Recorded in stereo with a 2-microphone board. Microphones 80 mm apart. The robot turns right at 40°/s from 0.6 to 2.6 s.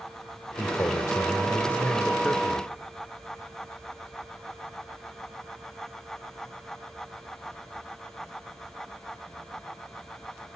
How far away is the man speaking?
About 1.1 m.